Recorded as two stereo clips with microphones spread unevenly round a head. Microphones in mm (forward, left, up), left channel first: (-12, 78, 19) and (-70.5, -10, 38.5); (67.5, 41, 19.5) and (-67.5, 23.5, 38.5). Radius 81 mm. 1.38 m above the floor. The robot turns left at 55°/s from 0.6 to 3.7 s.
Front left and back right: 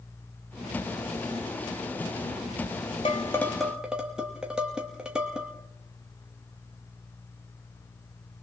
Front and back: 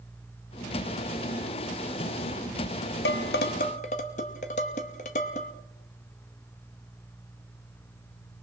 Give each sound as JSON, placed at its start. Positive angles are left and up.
{"t": 3.0, "sound": "dishes clattering", "azimuth_deg": -5, "distance_m": 1.2}